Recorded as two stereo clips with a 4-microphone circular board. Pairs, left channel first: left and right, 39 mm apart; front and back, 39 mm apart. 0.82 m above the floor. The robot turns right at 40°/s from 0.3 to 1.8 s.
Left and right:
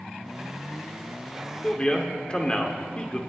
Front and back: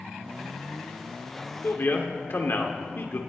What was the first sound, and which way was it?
A man speaking, 15° left.